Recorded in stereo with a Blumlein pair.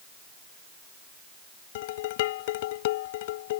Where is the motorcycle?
I don't hear a motorcycle.